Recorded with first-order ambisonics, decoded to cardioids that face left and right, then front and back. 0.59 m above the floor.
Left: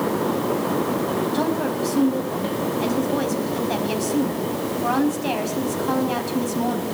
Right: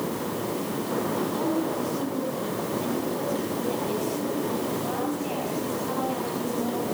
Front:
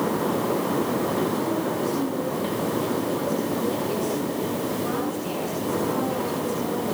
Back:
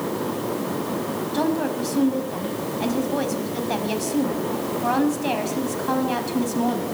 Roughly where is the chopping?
I don't hear chopping.